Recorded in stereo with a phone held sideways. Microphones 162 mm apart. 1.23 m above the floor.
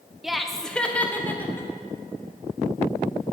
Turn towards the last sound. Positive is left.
turn(degrees=15)  # may be behind; listen again after turning